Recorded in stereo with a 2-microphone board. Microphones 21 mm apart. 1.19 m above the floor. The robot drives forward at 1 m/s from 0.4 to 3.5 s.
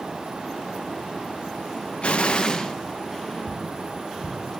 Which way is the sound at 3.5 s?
15° right (ahead or behind).